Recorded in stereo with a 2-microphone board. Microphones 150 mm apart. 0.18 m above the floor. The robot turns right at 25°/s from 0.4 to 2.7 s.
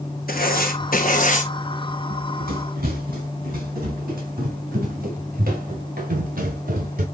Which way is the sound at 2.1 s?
65° right (ahead or behind).